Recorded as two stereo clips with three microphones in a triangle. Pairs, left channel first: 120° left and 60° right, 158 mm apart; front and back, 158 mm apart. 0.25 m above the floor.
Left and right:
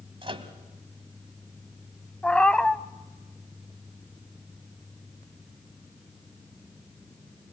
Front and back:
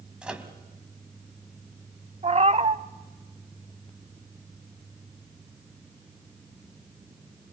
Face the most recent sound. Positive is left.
turn(degrees=-160)